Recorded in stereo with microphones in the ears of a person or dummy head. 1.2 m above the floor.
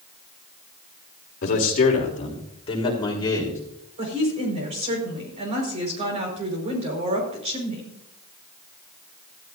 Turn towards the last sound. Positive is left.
turn(degrees=-35)  # may be behind; listen again after turning